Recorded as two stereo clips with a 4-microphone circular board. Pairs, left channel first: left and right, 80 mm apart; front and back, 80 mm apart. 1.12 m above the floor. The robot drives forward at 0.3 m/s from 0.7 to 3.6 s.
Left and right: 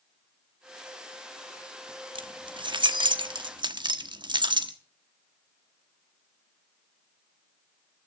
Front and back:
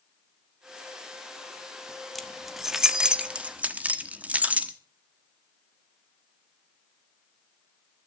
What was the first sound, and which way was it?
Keys jangling, 90° right.